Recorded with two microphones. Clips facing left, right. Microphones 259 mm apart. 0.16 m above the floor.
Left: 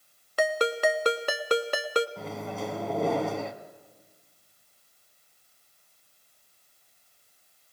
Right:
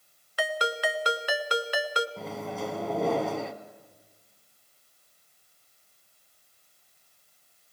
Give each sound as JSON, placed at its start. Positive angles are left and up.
{"t": 0.4, "sound": "a ringtone", "side_deg": 50, "distance_m": 0.8}
{"t": 2.2, "sound": "a microwave", "side_deg": 0, "distance_m": 1.3}